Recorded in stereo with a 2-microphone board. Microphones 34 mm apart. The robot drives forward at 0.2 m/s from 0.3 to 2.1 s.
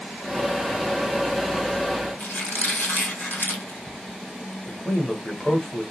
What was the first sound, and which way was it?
A squeak, 65° left (ahead or behind).